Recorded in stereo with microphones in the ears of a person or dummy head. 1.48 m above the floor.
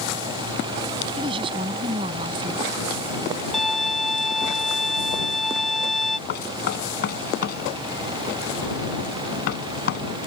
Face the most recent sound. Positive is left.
turn(degrees=55)  # may be behind; listen again after turning